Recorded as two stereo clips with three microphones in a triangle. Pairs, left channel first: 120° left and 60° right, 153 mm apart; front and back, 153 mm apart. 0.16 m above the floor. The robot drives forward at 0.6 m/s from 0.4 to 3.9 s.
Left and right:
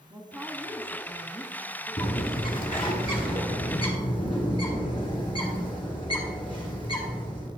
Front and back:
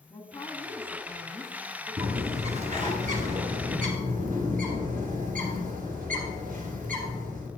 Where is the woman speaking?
10° left, 1.2 m; by 2.8 s 175° left, 1.4 m.